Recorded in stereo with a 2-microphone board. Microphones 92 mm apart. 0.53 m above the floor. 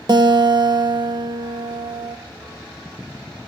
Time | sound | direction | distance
0.1 | a guitar | 50° right (ahead or behind) | 0.6 m